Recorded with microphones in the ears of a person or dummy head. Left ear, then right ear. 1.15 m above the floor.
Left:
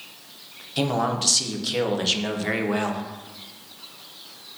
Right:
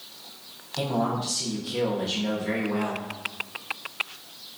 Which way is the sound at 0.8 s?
45° left (ahead or behind).